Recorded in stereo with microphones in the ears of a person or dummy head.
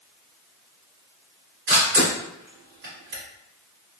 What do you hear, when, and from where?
1.7 s a camera shutter: 45° right (ahead or behind), 1.2 m